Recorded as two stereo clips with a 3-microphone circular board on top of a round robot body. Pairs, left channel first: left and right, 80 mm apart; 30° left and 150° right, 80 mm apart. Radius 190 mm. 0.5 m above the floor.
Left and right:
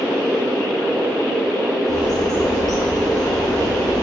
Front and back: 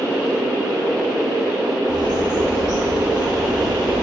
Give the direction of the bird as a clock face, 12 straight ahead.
8 o'clock.